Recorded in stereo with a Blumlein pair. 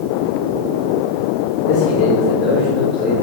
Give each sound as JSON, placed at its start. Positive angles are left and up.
{"t": 1.7, "sound": "a man speaking", "azimuth_deg": 30, "distance_m": 3.0}